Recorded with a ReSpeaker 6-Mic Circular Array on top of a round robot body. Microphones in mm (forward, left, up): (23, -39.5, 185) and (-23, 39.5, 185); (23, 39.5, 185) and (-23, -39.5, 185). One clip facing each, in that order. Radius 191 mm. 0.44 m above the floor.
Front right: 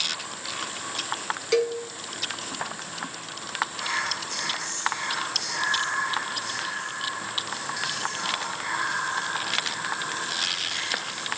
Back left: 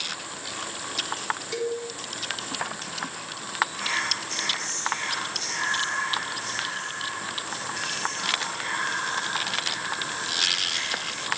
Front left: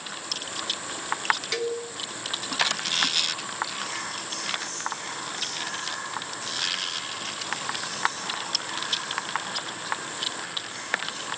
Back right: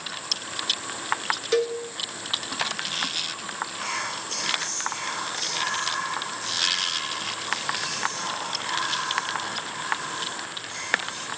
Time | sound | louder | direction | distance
1.5 | a cowbell | front right 7 dB, back right 5 dB | 65° right | 2.5 m
3.8 | whispering | even, back right 3 dB | 135° right | 2.5 m